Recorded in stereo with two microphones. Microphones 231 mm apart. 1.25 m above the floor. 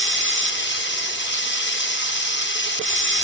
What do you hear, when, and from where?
0.0 s running water: 50° left (ahead or behind), 1.0 m